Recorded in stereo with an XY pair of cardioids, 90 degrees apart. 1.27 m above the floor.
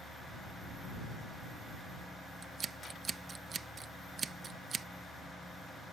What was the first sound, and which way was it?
Scissors, 55° right.